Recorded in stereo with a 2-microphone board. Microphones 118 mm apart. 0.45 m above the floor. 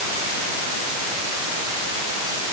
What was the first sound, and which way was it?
Only background noise.